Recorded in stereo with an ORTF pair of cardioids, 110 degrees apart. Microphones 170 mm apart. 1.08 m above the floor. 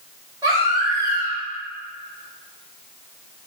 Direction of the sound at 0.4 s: 25° right.